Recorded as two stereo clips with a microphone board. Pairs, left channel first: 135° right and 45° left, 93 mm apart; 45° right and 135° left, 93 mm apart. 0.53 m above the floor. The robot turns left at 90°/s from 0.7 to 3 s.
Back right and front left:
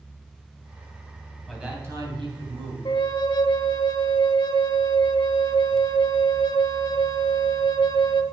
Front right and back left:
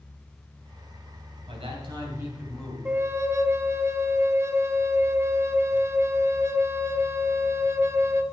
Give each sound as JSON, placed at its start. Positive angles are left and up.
{"t": 1.5, "sound": "a man speaking", "azimuth_deg": 140, "distance_m": 3.5}
{"t": 2.9, "sound": "a flute", "azimuth_deg": -155, "distance_m": 0.7}